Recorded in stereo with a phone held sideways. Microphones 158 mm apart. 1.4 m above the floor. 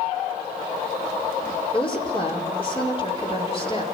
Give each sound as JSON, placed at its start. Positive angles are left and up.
{"t": 1.7, "sound": "a woman speaking", "side_deg": 35, "distance_m": 4.5}